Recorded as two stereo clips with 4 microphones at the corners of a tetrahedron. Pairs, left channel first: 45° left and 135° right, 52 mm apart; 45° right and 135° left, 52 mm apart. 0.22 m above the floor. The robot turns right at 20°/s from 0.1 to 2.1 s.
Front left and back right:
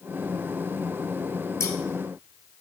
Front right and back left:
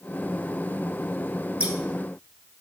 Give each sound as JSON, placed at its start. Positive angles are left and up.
{"t": 1.6, "sound": "scissors", "azimuth_deg": 70, "distance_m": 1.3}